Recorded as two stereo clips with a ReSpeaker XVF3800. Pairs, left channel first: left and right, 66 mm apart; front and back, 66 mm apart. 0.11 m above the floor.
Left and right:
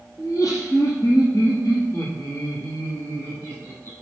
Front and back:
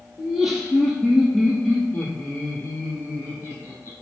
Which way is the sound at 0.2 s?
95° left.